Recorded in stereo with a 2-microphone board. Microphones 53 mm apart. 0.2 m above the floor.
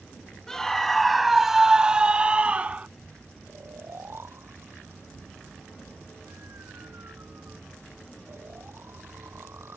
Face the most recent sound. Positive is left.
turn(degrees=-50)  # may be behind; listen again after turning